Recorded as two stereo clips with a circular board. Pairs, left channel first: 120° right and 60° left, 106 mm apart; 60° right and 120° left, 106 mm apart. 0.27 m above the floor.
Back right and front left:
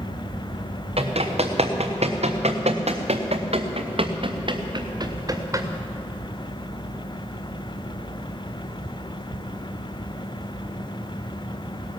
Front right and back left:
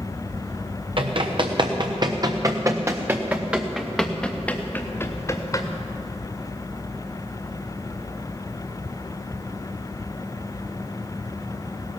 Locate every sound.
1.0 s running footsteps: 85° left, 2.5 m; by 5.7 s 5° right, 2 m